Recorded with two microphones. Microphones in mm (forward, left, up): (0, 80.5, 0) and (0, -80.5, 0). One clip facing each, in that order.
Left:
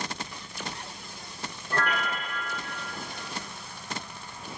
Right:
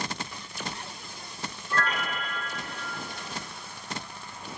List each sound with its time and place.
1.7 s a piano: 65° left (ahead or behind), 3 m